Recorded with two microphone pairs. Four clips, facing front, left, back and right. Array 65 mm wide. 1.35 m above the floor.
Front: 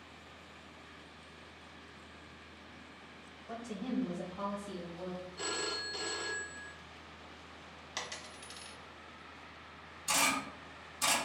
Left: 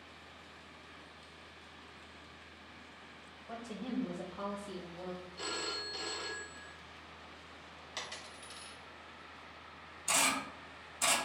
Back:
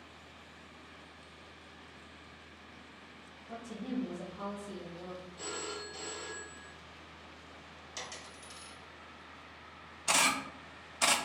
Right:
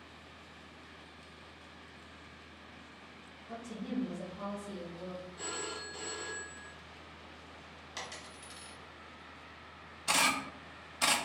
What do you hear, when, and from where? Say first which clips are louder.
3.5 s a woman speaking: right 1 dB, front 1 dB; 45° left, 1.2 m; by 5.3 s 50° left, 2 m
5.4 s a phone ringing: left 2 dB, front 3 dB; 35° left, 0.5 m
8.0 s a dropped coin: even, front 2 dB; 5° left, 1.0 m
10.1 s a camera shutter: right 3 dB, back 2 dB; 150° right, 0.6 m